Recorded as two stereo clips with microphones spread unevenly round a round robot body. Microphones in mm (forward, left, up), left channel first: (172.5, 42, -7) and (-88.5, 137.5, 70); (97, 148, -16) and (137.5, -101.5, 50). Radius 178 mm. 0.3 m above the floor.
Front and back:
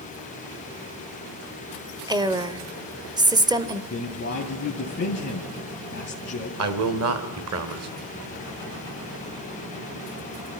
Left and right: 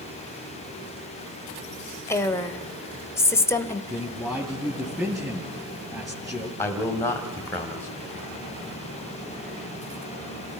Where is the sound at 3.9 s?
15° left, 2.5 m.